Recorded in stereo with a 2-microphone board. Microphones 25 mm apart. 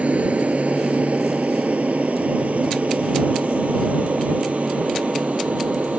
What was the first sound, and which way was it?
An aircraft, 65° right (ahead or behind).